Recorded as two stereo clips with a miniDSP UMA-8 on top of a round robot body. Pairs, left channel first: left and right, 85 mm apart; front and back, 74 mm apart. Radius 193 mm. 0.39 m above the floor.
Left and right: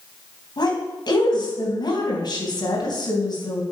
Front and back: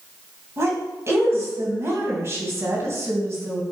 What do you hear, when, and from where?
0.6 s a woman speaking: 125° left, 3.5 m